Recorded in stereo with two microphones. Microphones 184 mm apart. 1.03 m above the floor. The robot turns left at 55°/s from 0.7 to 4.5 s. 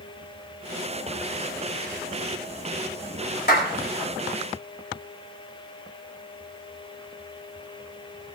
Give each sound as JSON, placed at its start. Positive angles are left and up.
{"t": 3.5, "sound": "a clap", "side_deg": 60, "distance_m": 3.0}